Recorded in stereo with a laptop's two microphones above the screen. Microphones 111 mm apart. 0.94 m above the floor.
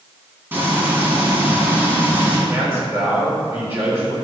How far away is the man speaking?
About 3.5 m.